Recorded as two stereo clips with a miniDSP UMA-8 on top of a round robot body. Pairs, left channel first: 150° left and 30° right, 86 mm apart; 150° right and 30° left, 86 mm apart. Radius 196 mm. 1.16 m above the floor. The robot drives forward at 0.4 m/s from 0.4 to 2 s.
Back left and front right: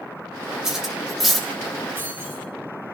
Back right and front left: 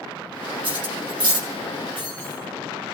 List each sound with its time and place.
0.6 s cutlery clinking: 55° left, 2 m; by 1.5 s 60° left, 2.0 m
1.9 s keys jangling: 35° left, 7 m